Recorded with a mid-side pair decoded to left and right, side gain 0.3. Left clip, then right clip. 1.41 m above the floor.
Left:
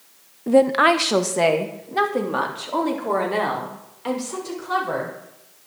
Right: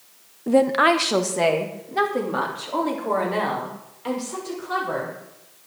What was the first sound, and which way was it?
A woman speaking, 5° left.